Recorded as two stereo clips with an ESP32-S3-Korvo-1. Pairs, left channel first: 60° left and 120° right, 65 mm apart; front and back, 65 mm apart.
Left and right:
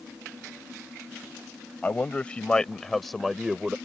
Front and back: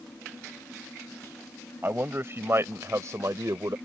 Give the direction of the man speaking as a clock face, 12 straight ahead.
8 o'clock.